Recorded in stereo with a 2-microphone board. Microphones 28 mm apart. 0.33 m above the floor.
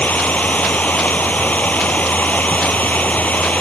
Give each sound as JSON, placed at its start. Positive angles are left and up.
{"t": 0.0, "sound": "running water", "side_deg": 75}